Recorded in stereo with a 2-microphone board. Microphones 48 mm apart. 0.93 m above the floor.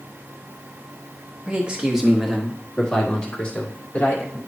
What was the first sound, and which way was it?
A man speaking, 30° right (ahead or behind).